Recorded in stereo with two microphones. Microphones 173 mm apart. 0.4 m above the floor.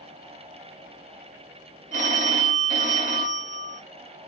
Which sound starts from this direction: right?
A phone ringing, at 1.9 s.